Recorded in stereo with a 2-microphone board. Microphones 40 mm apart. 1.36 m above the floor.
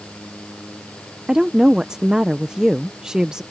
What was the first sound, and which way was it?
A woman speaking, 20° right (ahead or behind).